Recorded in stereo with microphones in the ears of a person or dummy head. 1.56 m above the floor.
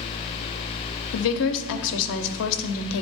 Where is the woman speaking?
75° left (ahead or behind), 0.7 m.